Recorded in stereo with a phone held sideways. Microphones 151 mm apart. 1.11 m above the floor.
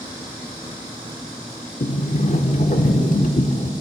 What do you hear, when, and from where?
1.8 s a sliding door: 55° left (ahead or behind), 1.0 m